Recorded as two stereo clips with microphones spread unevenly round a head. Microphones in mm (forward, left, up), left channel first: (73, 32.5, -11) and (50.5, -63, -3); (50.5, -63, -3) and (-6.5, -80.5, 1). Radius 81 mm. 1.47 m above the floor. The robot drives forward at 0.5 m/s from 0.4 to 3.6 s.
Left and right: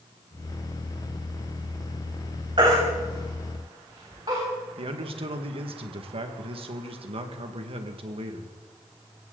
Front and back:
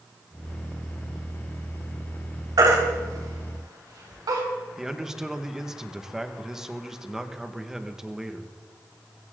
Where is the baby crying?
160° right, 3 m; by 4.4 s 165° right, 3.5 m.